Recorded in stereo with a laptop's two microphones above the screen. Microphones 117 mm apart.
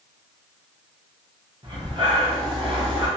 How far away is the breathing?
About 0.9 m.